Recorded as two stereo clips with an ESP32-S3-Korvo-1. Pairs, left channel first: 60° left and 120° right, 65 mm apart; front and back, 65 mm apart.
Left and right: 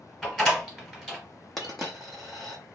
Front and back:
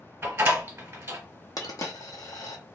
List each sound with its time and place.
0.2 s a door slam: 150° left, 1.5 m
1.6 s a dropped coin: 25° right, 0.7 m